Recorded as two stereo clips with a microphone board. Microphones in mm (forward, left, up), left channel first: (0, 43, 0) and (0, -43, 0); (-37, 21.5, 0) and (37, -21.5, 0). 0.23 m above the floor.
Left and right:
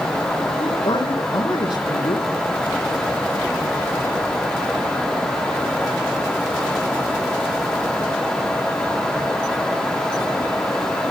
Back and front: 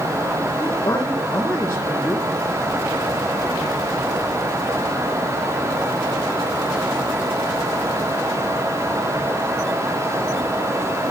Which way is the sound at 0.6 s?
95° left.